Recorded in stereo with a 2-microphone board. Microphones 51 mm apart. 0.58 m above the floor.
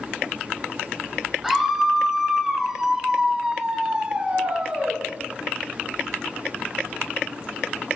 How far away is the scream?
About 3 m.